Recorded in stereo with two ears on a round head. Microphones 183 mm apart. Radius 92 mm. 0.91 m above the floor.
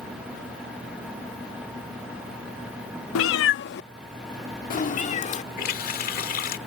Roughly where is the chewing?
I don't hear chewing.